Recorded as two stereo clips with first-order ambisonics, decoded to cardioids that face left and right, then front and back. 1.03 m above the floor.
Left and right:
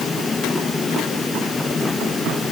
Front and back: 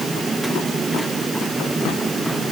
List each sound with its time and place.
Only background noise.